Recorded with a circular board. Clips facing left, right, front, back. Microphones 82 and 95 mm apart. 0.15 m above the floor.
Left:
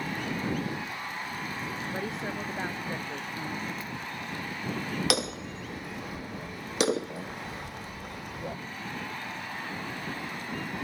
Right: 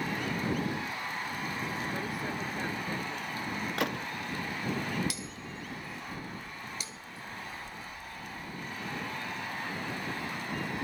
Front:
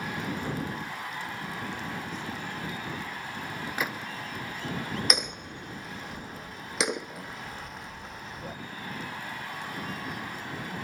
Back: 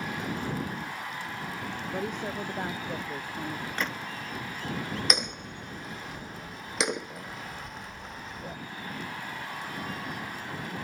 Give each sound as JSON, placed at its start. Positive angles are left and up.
{"t": 1.9, "sound": "a woman speaking", "azimuth_deg": 155}
{"t": 3.8, "sound": "a gunshot", "azimuth_deg": -85}
{"t": 5.1, "sound": "hammering", "azimuth_deg": 90}